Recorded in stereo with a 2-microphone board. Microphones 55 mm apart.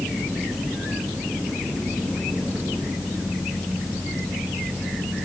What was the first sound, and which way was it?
Only background noise.